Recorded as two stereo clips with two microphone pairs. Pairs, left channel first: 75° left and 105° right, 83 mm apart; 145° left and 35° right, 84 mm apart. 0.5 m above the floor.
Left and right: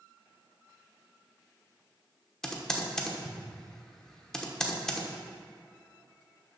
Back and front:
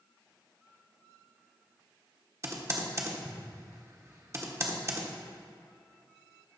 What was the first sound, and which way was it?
Typing on a keyboard, 5° right.